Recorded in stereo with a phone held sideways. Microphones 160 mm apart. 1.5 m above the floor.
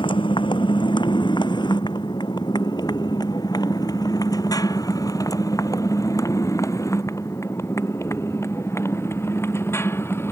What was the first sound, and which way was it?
A motorcycle, 30° left (ahead or behind).